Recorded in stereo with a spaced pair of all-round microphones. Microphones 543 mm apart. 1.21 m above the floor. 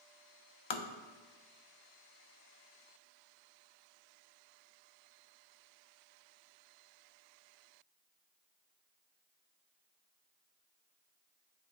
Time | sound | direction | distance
0.7 | tapping | 55° left (ahead or behind) | 0.5 m